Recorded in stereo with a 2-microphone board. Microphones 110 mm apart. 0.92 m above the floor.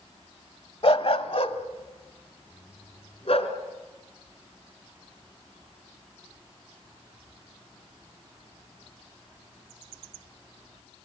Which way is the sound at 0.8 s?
55° left (ahead or behind).